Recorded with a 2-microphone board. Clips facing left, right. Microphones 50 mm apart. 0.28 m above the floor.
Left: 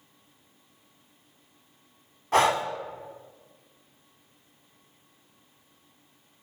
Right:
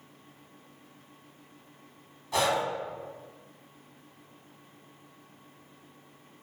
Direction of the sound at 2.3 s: 45° left (ahead or behind).